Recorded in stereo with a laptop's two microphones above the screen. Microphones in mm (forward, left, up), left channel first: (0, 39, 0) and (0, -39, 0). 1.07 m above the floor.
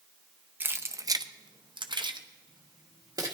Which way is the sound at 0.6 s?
25° right (ahead or behind).